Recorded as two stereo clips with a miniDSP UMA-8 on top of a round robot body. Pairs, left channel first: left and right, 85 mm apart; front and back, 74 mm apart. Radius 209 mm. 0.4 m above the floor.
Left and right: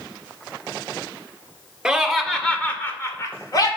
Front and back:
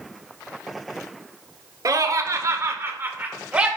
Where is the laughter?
175° right, 2 m; by 3.7 s 105° left, 2 m.